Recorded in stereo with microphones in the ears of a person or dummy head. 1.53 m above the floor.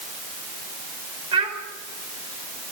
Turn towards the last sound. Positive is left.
turn(degrees=-25)  # may be behind; listen again after turning